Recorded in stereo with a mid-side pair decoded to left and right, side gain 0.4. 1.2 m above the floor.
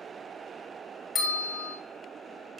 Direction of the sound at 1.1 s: 40° left.